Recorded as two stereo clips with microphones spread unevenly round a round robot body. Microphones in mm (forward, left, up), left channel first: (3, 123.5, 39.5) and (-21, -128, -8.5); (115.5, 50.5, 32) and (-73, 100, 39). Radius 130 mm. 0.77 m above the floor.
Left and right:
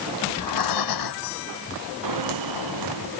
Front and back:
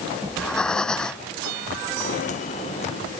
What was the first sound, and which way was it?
Breathing, 70° left.